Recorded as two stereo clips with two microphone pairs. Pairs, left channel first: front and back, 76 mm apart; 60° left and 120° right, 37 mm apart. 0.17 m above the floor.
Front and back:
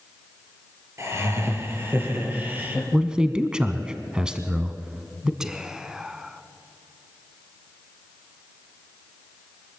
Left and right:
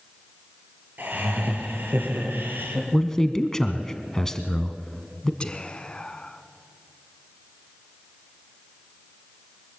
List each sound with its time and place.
1.0 s laughter: 135° right, 4 m; by 2.8 s 115° right, 5 m
2.9 s a man speaking: 115° left, 1.1 m
5.4 s whispering: 105° left, 1.3 m